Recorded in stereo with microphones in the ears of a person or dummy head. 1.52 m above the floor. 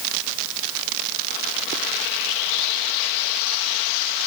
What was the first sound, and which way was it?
Only background noise.